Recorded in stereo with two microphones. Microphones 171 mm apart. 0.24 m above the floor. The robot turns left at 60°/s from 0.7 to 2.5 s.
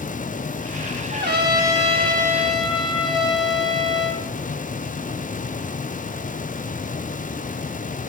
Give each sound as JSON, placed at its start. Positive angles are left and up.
{"t": 1.1, "sound": "a trumpet", "azimuth_deg": -95, "distance_m": 3.0}